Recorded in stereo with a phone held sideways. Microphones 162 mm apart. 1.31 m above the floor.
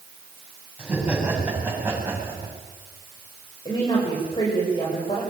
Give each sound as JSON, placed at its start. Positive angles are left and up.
{"t": 0.8, "sound": "laughter", "side_deg": -10, "distance_m": 9.5}
{"t": 3.6, "sound": "a woman speaking", "side_deg": 30, "distance_m": 6.5}